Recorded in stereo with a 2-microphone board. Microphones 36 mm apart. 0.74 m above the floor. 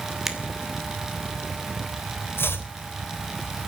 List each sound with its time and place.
0.3 s a finger snap: 5° right (ahead or behind), 2.5 m
2.4 s chopping: 75° left (ahead or behind), 3 m